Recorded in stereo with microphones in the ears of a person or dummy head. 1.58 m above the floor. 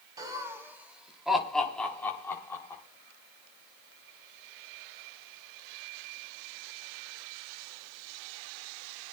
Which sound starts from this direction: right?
Laughter, at 0.2 s.